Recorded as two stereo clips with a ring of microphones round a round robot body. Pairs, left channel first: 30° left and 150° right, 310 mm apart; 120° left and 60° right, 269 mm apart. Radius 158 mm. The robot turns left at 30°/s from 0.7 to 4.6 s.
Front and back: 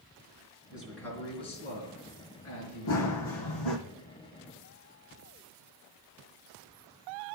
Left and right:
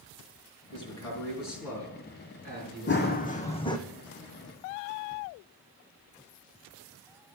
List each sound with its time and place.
0.7 s a man speaking: 125° left, 3.5 m; by 3.9 s 30° left, 3.5 m
2.9 s running footsteps: 70° left, 1.4 m; by 3.8 s 45° left, 1.4 m